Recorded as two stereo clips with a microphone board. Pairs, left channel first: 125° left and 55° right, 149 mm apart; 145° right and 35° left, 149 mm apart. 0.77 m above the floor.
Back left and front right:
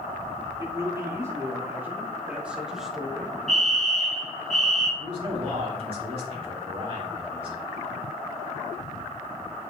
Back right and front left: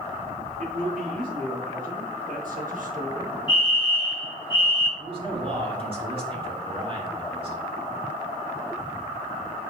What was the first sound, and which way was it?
A man speaking, 10° left.